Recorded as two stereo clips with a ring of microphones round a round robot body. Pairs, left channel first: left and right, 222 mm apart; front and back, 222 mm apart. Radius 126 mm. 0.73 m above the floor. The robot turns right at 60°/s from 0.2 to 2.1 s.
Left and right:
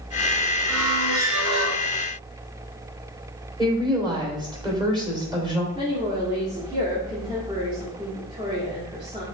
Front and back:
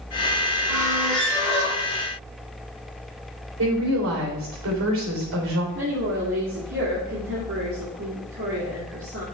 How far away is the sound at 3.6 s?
About 3.5 m.